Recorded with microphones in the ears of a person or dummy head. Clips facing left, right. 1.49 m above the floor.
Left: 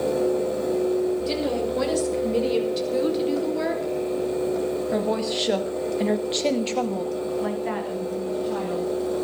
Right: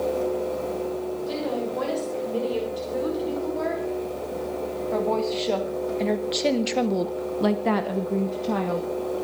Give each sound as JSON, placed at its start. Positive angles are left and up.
{"t": 1.3, "sound": "a woman speaking", "side_deg": 35, "distance_m": 6.5}